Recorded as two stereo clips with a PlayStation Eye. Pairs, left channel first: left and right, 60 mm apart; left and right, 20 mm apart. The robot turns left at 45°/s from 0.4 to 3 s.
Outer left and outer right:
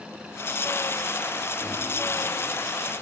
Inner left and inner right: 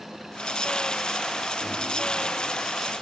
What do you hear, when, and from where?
1.6 s a microwave: 10° right (ahead or behind), 7 m; by 1.8 s 5° right (ahead or behind), 7 m